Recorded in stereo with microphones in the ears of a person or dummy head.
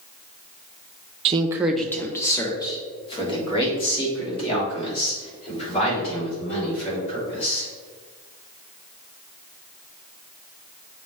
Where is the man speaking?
30° right (ahead or behind), 0.5 m; by 7.7 s 35° left (ahead or behind), 6 m.